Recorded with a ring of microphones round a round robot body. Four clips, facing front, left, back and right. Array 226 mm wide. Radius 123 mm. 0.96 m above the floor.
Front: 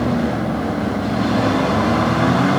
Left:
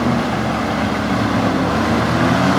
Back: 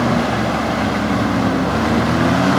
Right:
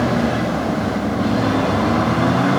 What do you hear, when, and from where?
Only background noise.